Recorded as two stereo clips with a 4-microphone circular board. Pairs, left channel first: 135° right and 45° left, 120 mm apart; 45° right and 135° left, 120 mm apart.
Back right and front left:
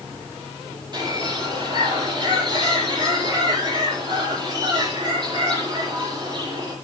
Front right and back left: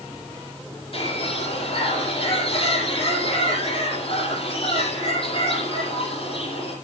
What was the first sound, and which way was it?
A bird, 5° right.